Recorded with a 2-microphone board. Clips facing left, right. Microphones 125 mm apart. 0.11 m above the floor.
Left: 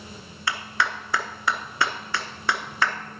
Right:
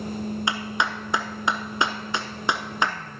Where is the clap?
20° right (ahead or behind), 0.8 m.